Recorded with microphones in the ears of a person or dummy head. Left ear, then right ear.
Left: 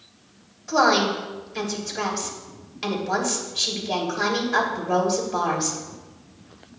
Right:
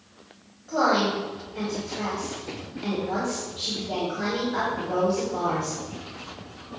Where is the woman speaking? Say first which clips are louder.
Left 3 dB; 60° left (ahead or behind), 3 m.